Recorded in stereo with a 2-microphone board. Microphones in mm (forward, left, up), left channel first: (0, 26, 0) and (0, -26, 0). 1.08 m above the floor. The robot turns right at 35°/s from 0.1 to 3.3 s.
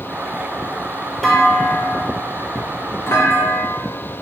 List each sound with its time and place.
1.2 s a clunk: 5° left, 0.6 m; by 3.8 s 75° left, 0.6 m